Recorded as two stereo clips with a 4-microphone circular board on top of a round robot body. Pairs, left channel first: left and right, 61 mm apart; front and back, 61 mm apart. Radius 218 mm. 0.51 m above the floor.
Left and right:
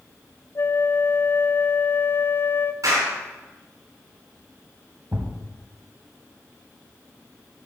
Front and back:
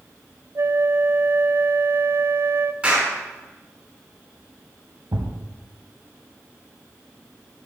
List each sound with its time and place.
0.6 s a flute: 140° left, 0.5 m
2.8 s a clap: 110° right, 5 m
5.1 s a thud: 150° right, 1.2 m